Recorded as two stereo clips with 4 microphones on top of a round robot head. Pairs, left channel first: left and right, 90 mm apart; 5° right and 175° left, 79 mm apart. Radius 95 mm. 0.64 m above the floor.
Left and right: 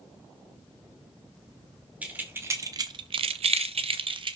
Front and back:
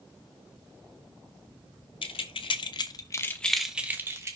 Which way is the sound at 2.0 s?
15° right.